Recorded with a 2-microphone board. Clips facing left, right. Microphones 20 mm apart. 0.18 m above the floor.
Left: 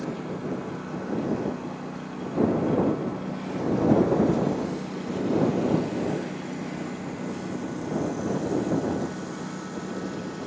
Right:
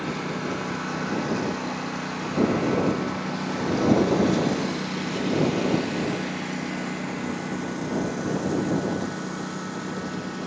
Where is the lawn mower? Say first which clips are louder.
Right 3 dB; 85° right; by 10.5 s 20° right (ahead or behind).